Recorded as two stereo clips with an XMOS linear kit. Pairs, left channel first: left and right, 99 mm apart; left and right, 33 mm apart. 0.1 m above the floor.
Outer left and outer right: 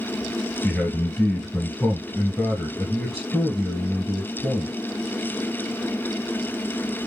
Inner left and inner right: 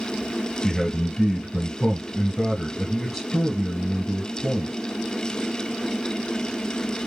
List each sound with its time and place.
0.6 s a man speaking: 5° left (ahead or behind), 1.3 m